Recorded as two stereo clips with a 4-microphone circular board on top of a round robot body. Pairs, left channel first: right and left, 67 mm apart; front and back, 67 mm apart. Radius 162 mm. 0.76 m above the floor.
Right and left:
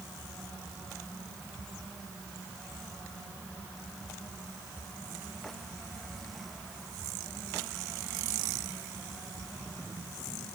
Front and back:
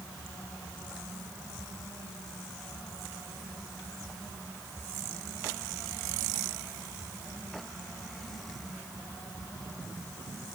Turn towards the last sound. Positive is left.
No sound to turn to.